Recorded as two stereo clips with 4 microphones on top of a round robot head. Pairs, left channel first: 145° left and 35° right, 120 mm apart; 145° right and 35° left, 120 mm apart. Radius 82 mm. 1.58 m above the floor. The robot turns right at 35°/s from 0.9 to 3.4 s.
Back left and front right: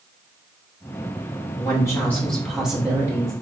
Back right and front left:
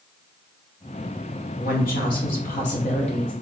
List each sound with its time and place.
1.6 s a woman speaking: 160° right, 0.8 m; by 3.3 s 100° right, 0.8 m